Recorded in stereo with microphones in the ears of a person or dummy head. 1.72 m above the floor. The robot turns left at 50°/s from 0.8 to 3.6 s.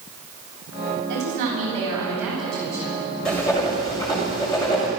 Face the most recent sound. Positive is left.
turn(degrees=25)  # may be behind; listen again after turning